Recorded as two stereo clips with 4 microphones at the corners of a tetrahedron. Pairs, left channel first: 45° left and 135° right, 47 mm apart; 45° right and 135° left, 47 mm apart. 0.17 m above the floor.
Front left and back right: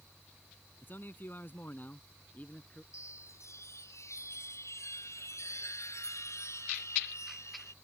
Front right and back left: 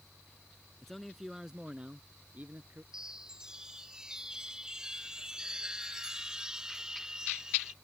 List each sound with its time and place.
0.8 s a man speaking: 35° left; by 2.8 s 100° left
2.9 s a chime: 60° left